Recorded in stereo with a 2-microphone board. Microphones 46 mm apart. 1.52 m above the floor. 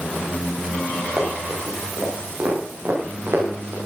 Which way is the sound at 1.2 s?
70° right (ahead or behind).